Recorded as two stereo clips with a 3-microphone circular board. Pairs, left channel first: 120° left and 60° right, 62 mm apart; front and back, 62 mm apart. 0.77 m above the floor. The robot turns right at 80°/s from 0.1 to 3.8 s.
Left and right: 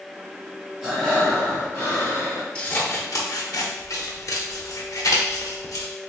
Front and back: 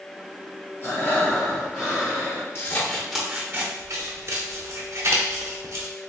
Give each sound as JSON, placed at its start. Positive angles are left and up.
{"t": 0.8, "sound": "breathing", "azimuth_deg": 15, "distance_m": 1.4}
{"t": 2.5, "sound": "scissors", "azimuth_deg": 45, "distance_m": 0.6}